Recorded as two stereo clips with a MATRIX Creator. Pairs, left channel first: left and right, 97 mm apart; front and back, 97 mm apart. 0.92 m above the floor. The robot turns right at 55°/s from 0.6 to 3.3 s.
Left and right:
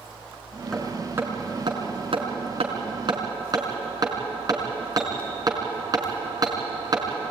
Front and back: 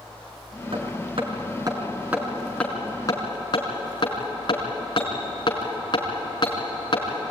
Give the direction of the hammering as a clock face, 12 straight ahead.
6 o'clock.